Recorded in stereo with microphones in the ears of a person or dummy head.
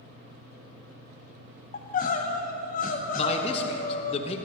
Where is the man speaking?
35° left (ahead or behind), 1.2 m.